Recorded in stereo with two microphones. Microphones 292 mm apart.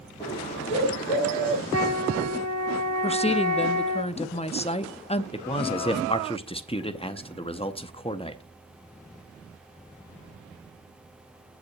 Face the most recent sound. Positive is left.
turn(degrees=20)  # may be behind; listen again after turning